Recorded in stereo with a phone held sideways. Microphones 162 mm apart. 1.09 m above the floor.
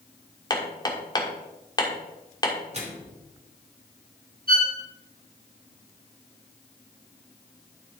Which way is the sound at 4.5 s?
80° right.